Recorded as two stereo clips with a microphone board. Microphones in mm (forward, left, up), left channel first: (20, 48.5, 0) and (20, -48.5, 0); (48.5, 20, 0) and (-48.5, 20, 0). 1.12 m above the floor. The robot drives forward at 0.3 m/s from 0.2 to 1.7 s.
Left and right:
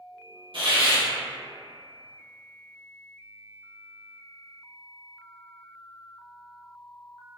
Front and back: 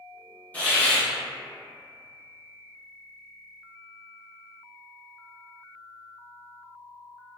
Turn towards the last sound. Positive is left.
turn(degrees=-90)